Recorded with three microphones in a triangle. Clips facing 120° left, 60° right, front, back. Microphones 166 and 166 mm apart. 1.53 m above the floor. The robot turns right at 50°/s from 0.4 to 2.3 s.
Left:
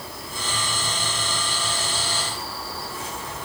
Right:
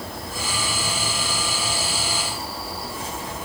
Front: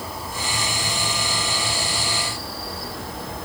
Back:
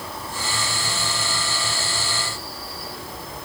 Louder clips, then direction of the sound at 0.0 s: Right 3 dB, front 1 dB; 80° right.